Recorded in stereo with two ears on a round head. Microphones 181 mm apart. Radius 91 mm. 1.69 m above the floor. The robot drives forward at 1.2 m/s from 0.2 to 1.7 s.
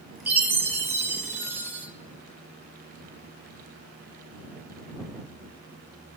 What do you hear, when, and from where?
0.3 s a chime: 10° right (ahead or behind), 1.9 m